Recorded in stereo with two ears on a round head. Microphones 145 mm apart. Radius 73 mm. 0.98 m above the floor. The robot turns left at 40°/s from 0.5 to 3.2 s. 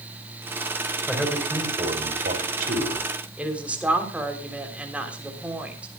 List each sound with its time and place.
1.1 s a man speaking: straight ahead, 4 m; by 3.1 s 80° right, 4 m
3.4 s a woman speaking: 10° right (ahead or behind), 3.5 m